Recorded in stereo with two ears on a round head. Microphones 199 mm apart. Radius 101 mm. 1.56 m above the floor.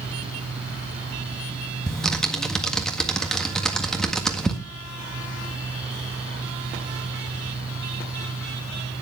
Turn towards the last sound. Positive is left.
turn(degrees=5)  # may be behind; listen again after turning